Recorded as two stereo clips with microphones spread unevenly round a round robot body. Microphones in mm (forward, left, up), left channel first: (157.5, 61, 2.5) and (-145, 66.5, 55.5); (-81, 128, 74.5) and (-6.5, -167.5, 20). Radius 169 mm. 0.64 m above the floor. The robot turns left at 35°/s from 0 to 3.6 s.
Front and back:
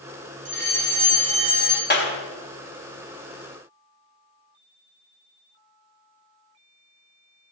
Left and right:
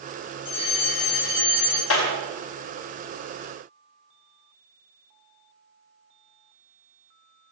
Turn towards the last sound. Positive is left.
turn(degrees=-5)